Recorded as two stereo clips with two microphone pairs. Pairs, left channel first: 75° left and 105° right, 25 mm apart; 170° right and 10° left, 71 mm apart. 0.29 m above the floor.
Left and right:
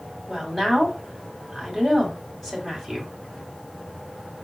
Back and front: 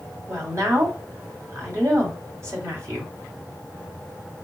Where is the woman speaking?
5° right, 2.5 m.